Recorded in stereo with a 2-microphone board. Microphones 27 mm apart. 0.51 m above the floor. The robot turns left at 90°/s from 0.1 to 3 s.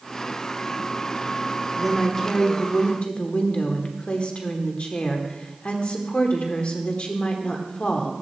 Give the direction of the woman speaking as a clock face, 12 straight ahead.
5 o'clock.